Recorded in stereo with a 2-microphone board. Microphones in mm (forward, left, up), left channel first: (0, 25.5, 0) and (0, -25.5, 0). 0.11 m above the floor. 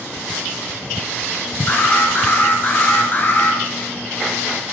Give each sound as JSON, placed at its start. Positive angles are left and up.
{"t": 1.7, "sound": "an alarm", "side_deg": 35, "distance_m": 2.5}